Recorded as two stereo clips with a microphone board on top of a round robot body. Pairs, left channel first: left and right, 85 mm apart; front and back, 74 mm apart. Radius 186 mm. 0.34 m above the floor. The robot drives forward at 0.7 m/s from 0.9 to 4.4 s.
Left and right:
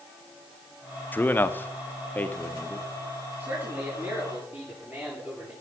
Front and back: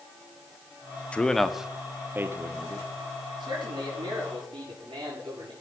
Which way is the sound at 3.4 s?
160° right.